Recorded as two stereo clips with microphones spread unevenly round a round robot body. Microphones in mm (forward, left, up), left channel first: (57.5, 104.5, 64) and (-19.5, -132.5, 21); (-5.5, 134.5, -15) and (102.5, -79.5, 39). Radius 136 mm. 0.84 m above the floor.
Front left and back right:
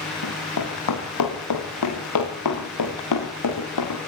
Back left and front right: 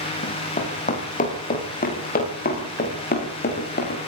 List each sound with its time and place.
0.2 s running footsteps: 55° left, 8.5 m; by 4.0 s 65° left, 10 m